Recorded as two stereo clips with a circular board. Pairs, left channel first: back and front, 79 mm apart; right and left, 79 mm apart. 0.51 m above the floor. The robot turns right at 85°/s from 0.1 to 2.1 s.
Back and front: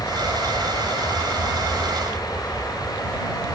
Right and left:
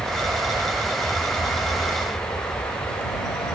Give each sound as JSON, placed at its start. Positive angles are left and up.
{"t": 0.0, "sound": "an aircraft", "azimuth_deg": 110}